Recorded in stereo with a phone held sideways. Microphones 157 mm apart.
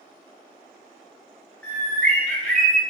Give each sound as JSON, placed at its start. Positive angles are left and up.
{"t": 1.6, "sound": "a bird", "side_deg": 10, "distance_m": 0.6}